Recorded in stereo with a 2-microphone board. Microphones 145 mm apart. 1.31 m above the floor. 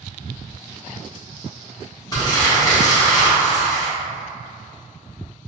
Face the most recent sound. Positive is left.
turn(degrees=30)  # may be behind; listen again after turning